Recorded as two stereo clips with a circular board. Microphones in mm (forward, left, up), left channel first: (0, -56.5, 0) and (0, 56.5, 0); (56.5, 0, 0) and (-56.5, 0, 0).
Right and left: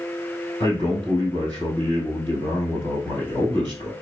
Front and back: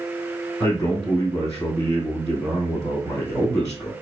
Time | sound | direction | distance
0.6 | a man speaking | 55° left | 2 m